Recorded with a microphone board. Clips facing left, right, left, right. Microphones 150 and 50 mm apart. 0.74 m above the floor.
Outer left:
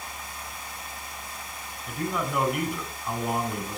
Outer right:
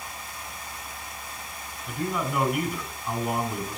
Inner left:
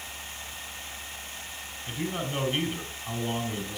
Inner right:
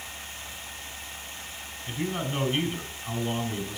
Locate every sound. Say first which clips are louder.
1.9 s a man speaking: outer right 1 dB, inner right 1 dB; centre (ahead or behind), 4.5 m